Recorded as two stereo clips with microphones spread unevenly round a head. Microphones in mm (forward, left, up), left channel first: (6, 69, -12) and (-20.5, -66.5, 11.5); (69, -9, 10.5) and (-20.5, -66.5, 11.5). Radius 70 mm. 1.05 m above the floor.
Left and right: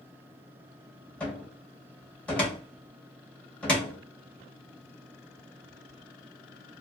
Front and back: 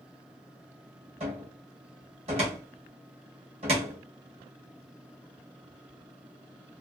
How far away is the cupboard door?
About 1.1 m.